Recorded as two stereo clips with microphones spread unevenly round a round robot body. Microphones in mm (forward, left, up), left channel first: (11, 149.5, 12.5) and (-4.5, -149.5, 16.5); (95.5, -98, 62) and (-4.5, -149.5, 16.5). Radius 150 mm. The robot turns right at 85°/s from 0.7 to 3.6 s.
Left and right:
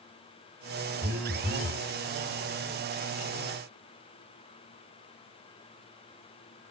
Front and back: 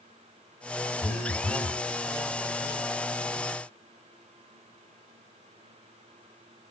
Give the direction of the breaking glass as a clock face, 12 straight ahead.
I don't hear breaking glass.